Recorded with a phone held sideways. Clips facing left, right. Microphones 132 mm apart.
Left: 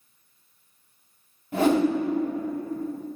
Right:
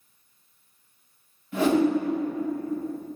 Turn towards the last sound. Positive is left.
turn(degrees=45)  # may be behind; listen again after turning